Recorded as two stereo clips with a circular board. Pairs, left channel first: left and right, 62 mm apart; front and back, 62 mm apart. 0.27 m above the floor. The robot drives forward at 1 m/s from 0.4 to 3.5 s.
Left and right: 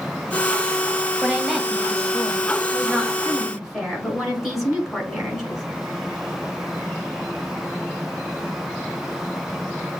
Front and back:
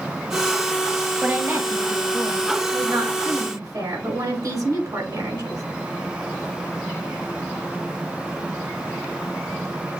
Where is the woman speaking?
170° right, 1.1 m; by 5.6 s straight behind, 3 m.